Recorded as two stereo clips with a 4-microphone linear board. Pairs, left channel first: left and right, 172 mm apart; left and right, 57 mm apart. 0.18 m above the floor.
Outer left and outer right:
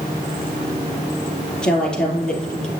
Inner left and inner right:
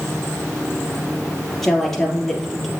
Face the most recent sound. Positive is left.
turn(degrees=5)  # may be behind; listen again after turning